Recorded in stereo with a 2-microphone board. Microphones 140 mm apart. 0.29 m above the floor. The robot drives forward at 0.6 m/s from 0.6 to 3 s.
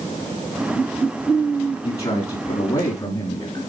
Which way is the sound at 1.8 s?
45° left (ahead or behind).